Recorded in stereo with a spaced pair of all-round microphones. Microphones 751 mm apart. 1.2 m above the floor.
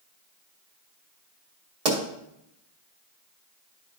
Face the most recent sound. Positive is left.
turn(degrees=-60)  # may be behind; listen again after turning